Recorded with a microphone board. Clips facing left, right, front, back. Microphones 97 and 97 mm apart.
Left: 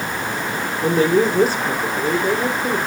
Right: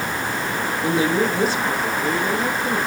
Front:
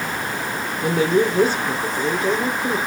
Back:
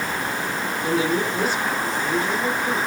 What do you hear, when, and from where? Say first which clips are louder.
0.8 s a woman speaking: left 4 dB, front 5 dB; 45° left, 4.5 m